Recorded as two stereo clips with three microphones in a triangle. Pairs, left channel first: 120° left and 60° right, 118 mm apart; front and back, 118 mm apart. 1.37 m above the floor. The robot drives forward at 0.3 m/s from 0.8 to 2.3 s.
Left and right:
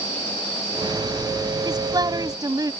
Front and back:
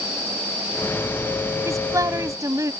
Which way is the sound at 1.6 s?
115° right.